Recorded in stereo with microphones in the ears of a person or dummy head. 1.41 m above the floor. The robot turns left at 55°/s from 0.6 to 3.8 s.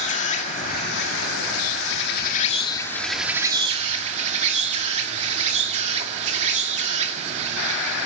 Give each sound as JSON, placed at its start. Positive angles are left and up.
{"t": 0.0, "sound": "an insect", "azimuth_deg": 140, "distance_m": 2.0}